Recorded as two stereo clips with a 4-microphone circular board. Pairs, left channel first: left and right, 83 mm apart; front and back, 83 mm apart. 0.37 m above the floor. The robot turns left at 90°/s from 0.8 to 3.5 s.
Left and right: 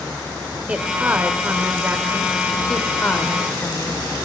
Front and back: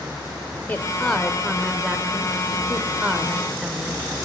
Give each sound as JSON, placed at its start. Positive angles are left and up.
{"t": 0.7, "sound": "a woman speaking", "azimuth_deg": -35, "distance_m": 1.4}